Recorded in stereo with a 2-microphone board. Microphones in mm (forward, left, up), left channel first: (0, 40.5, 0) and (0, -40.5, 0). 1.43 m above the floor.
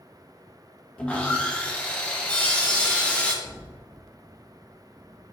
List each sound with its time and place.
1.0 s sawing: 15° left (ahead or behind), 0.7 m
3.4 s a thud: 5° left (ahead or behind), 0.9 m